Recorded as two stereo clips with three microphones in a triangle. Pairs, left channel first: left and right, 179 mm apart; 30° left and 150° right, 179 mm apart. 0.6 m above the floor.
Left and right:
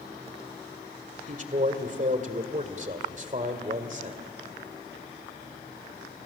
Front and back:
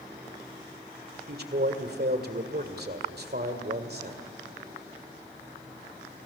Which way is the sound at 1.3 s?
130° right.